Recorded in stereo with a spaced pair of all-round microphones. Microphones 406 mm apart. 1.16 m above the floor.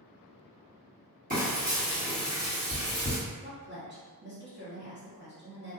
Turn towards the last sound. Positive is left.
turn(degrees=-25)  # may be behind; listen again after turning